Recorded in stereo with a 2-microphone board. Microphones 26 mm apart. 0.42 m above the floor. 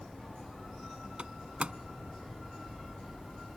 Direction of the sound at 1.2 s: 40° right (ahead or behind).